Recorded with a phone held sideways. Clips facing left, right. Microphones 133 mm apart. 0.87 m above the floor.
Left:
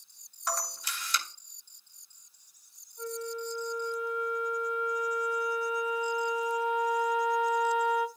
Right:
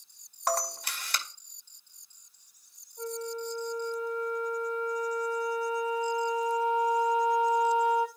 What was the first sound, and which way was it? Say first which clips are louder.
A camera shutter: right 6 dB; 60° right (ahead or behind).